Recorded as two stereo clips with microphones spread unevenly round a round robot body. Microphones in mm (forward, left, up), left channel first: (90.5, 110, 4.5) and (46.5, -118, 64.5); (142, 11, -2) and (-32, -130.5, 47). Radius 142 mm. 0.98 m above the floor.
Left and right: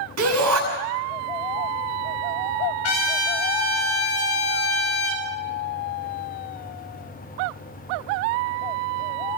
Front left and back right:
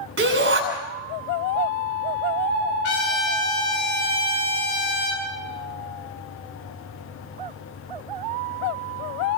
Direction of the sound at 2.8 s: 85° left.